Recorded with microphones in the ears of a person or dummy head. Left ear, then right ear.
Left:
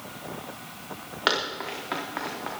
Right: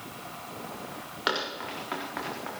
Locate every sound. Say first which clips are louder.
1.3 s running footsteps: left 4 dB; 10° left (ahead or behind), 4.5 m; by 2.5 s 5° right (ahead or behind), 3.5 m